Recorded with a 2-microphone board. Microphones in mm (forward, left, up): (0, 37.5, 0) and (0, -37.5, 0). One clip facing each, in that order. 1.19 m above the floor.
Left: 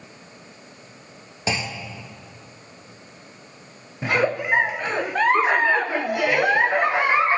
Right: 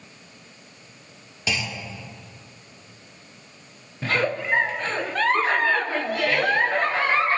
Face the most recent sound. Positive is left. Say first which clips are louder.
# left 3 dB
turn(degrees=15)  # may be behind; listen again after turning